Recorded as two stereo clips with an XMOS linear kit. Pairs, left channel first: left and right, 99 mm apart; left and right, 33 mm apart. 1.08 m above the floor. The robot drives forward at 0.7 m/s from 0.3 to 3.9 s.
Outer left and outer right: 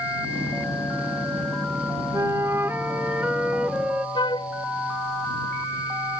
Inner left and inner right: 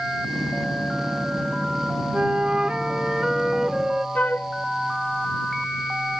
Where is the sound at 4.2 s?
55° left (ahead or behind).